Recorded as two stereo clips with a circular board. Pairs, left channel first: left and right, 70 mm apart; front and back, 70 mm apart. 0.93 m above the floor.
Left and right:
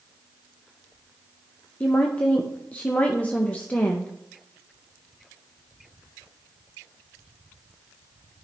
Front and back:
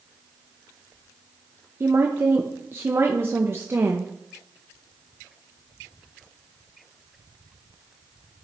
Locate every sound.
1.8 s a woman speaking: 150° left, 0.6 m